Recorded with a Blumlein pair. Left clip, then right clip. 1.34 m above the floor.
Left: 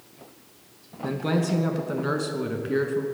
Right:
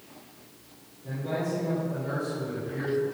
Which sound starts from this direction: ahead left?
A man speaking, at 1.0 s.